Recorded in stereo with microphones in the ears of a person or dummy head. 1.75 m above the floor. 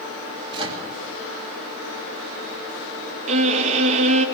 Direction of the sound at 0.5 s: 30° right (ahead or behind).